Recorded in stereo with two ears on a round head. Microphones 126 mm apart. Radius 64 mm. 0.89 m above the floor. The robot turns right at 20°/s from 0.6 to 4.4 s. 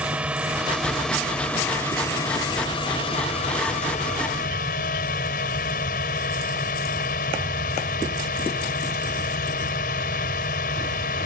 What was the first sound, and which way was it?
A drone, 10° right.